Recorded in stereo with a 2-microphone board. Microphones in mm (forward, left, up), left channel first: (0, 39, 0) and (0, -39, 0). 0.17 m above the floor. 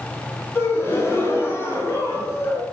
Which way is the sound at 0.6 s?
30° left (ahead or behind).